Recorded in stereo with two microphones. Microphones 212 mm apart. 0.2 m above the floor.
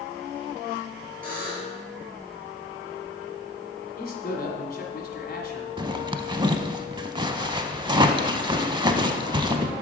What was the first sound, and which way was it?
A buzzer, 40° right (ahead or behind).